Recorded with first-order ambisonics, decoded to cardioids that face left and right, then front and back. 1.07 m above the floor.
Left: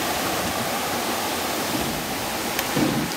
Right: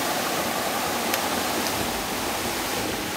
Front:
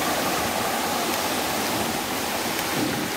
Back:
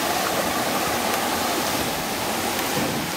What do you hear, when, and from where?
1.7 s a gunshot: 90° left, 2 m